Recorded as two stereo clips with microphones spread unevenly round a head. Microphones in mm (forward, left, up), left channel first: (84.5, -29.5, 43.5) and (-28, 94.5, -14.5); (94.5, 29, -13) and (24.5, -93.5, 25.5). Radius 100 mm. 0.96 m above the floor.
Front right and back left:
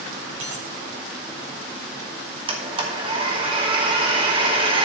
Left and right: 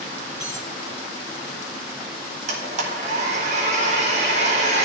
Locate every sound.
0.4 s a dropped coin: 155° left, 6.5 m
2.5 s a blender: straight behind, 1.6 m